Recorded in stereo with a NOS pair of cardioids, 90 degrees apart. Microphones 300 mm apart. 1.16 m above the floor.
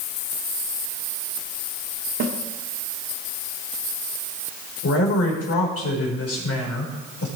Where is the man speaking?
45° left, 4.5 m.